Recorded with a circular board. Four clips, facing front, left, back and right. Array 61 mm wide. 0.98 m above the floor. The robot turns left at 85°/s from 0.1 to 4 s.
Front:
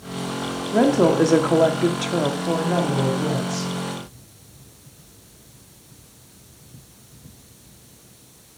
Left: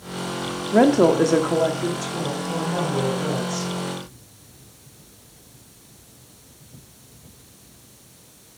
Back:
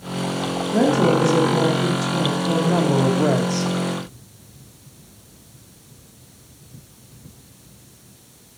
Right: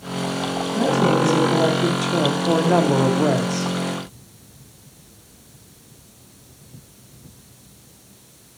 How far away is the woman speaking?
About 2.0 m.